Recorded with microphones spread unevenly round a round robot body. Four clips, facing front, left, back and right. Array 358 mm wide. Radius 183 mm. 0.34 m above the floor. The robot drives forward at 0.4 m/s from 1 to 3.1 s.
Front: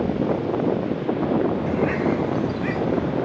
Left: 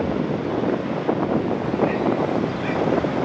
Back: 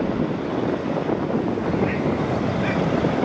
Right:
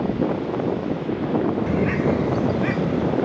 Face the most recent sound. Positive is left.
turn(degrees=-140)